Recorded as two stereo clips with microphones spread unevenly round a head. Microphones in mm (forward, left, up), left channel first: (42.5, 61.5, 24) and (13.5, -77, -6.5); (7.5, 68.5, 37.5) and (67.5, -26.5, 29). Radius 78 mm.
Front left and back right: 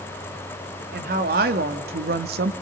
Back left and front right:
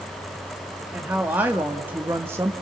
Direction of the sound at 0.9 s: 140° right.